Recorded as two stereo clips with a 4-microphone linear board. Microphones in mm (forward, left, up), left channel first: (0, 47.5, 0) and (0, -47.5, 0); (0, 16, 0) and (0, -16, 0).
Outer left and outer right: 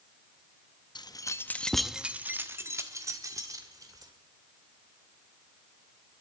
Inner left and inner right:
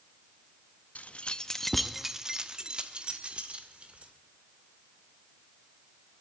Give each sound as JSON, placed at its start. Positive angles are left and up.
{"t": 0.9, "sound": "keys jangling", "side_deg": 50, "distance_m": 0.7}